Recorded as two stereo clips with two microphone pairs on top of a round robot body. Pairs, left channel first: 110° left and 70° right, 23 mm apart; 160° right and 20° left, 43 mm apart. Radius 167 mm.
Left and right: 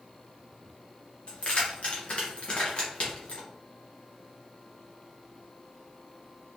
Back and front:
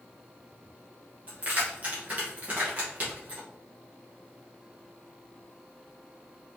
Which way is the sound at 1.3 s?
70° left.